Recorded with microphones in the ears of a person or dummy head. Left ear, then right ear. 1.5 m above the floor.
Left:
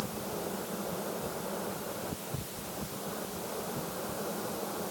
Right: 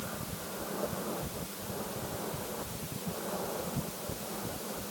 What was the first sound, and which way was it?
Only background noise.